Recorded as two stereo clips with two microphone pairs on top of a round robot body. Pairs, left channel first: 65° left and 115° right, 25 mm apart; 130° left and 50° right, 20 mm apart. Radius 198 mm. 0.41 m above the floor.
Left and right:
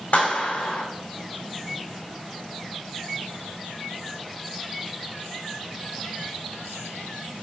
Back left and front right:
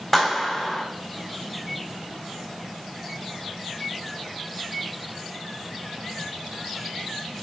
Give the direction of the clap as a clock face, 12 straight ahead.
11 o'clock.